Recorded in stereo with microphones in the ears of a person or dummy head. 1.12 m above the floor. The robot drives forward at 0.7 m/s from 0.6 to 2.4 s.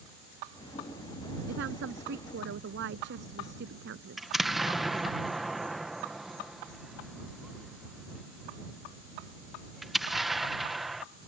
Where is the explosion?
Centre (ahead or behind).